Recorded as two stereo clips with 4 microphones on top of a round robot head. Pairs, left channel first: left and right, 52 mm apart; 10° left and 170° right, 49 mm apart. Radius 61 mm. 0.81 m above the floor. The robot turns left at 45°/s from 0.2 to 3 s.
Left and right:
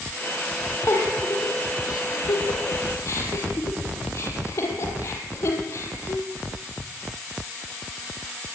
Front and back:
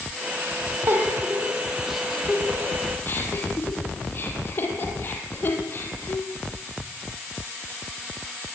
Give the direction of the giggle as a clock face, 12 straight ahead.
7 o'clock.